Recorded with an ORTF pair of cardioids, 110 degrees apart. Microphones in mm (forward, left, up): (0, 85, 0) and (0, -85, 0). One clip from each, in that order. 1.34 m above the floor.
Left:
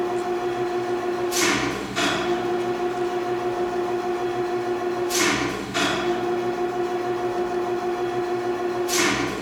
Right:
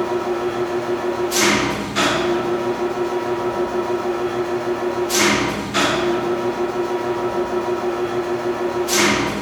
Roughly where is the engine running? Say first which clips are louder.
Right 3 dB; ahead right.